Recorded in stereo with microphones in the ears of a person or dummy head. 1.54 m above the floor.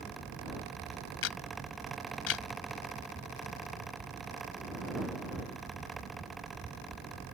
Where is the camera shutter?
65° left (ahead or behind).